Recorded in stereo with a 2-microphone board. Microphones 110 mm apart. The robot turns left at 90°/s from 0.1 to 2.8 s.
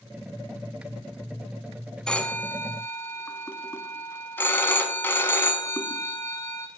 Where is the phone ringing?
5° left (ahead or behind), 0.6 m; by 6.7 s 20° left (ahead or behind), 0.6 m.